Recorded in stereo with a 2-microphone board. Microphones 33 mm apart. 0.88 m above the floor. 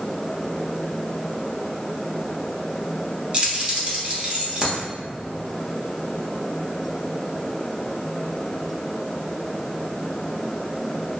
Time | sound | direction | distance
3.3 | keys jangling | 35° right (ahead or behind) | 0.6 m